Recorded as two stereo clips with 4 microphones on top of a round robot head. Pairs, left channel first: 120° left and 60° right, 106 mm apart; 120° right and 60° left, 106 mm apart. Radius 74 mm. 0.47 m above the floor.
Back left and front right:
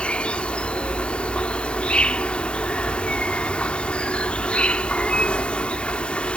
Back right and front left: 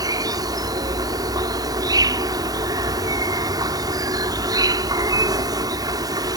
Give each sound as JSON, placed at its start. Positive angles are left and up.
{"t": 0.0, "sound": "an insect", "azimuth_deg": 50}